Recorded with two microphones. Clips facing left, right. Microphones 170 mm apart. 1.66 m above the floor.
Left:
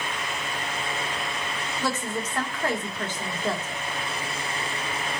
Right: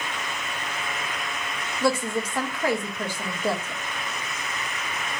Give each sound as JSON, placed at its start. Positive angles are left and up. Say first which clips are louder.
{"t": 1.8, "sound": "a woman speaking", "louder": "right 6 dB", "side_deg": -10, "distance_m": 1.9}